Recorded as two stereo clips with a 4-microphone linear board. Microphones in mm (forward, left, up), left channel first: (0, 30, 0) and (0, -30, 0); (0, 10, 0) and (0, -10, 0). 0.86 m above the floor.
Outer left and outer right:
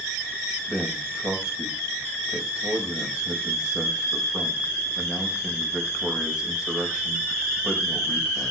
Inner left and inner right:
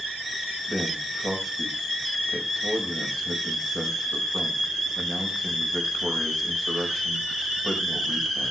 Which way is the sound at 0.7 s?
15° right (ahead or behind).